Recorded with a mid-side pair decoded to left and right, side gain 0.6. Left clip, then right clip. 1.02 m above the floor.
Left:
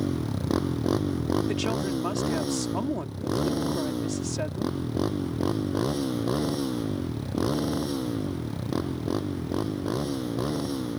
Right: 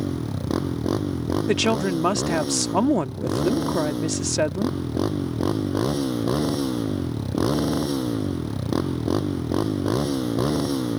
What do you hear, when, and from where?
0.0 s a motorcycle: 5° right; by 11.0 s 30° right
1.5 s a woman speaking: 50° right